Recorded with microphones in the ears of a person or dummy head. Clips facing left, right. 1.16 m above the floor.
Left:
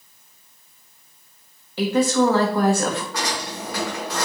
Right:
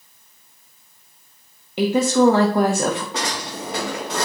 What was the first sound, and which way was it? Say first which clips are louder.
A woman speaking: right 2 dB; 15° right (ahead or behind).